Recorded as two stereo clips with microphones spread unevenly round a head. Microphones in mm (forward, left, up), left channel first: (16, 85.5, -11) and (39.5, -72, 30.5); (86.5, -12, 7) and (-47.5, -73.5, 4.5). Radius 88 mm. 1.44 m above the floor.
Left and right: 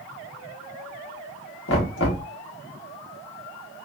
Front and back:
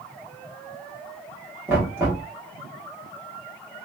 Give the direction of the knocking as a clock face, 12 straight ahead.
8 o'clock.